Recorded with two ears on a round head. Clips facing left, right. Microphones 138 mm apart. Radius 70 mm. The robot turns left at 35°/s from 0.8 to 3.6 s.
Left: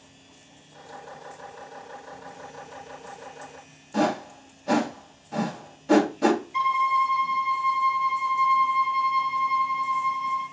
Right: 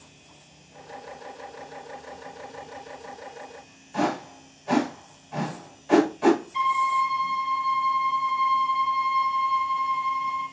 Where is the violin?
60° left (ahead or behind), 1.6 m.